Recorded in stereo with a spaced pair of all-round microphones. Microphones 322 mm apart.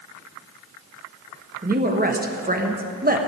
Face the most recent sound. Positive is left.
turn(degrees=-30)  # may be behind; listen again after turning